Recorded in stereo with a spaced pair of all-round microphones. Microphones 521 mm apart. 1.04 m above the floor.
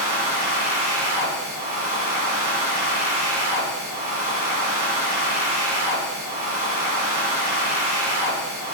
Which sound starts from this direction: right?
A machine running, at 0.0 s.